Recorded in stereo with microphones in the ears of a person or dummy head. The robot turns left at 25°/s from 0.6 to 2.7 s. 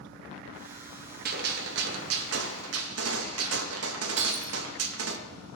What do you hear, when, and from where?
1.2 s a gunshot: 50° right, 1.5 m; by 5.2 s 85° right, 1.5 m
4.2 s breaking glass: 40° right (ahead or behind), 2.0 m